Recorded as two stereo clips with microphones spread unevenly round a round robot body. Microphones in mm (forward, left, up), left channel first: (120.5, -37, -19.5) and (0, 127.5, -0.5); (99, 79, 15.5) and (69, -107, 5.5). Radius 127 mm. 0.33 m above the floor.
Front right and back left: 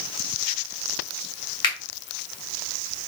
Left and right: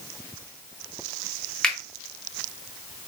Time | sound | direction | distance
1.6 | a finger snap | 10° right | 1.4 m